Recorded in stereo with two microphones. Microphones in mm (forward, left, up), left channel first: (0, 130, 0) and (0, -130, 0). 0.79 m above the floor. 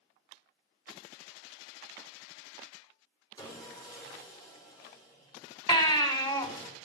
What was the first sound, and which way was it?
Sawing, 15° left (ahead or behind).